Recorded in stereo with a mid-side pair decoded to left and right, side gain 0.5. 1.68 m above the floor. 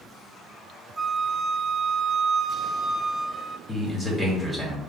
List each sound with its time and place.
1.0 s a flute: 10° right, 0.6 m
3.7 s a man speaking: 20° left, 2.5 m